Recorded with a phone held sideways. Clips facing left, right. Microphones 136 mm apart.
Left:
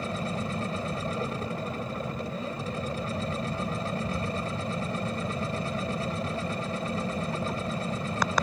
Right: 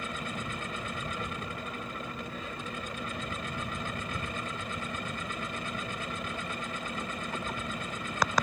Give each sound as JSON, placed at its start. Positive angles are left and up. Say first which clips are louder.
{"t": 0.0, "sound": "a machine running", "louder": "left 6 dB", "side_deg": 35}